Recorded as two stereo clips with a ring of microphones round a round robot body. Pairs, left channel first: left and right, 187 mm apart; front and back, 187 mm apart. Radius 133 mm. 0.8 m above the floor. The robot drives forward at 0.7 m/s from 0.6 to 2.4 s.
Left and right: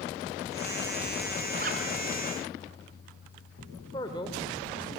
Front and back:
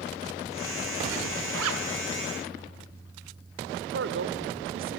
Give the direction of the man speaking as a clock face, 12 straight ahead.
6 o'clock.